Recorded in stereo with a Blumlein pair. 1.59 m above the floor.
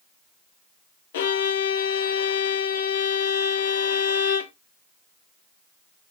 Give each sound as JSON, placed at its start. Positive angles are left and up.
{"t": 1.1, "sound": "a violin", "azimuth_deg": 55, "distance_m": 0.6}